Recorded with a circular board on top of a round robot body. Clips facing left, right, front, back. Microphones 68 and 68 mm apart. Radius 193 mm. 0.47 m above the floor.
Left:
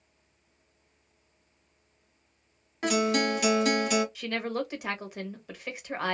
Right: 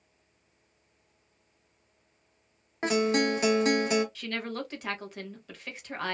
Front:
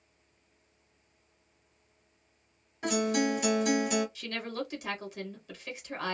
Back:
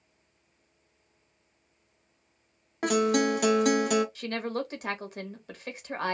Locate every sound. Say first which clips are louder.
2.8 s a guitar: even, back 4 dB; 155° right, 0.8 m
4.2 s a woman speaking: left 4 dB, back 5 dB; 165° left, 1.4 m